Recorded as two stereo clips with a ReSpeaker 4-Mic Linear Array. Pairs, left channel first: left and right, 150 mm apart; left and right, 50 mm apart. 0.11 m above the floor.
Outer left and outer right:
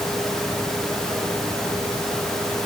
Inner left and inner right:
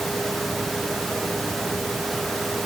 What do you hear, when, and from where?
Only background noise.